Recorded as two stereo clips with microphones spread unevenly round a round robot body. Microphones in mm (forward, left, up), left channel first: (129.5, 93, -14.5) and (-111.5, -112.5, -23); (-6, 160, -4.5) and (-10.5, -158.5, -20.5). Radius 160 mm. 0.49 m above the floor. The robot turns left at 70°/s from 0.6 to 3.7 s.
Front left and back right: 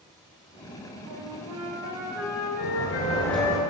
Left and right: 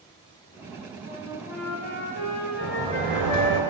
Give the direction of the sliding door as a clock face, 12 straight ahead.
12 o'clock.